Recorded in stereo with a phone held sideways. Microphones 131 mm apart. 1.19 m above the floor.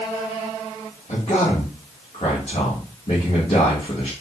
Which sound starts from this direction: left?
A man speaking, at 1.1 s.